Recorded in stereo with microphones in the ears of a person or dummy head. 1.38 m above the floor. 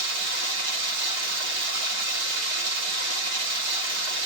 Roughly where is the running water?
Right.